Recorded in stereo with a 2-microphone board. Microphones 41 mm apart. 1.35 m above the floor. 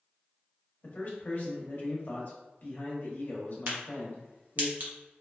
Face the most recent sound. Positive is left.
turn(degrees=-45)  # may be behind; listen again after turning